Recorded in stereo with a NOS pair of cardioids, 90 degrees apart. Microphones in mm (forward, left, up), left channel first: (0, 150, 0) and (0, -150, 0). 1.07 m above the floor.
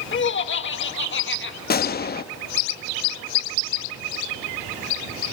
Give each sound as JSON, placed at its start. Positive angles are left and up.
{"t": 0.1, "sound": "laughter", "azimuth_deg": 40, "distance_m": 1.8}
{"t": 1.7, "sound": "a gunshot", "azimuth_deg": 35, "distance_m": 0.8}